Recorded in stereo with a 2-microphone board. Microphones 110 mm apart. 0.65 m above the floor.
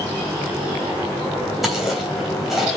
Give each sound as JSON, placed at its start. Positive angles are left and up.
{"t": 1.6, "sound": "chewing", "side_deg": -5, "distance_m": 3.0}